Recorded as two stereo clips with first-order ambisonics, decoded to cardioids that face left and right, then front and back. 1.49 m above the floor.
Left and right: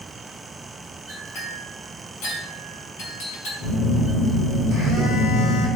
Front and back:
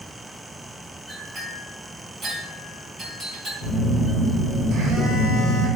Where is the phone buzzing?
125° left, 1.4 m.